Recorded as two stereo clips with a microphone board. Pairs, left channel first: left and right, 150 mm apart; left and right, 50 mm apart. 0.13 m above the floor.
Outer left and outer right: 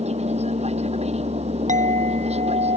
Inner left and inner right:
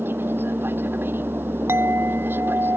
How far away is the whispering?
No whispering in this recording.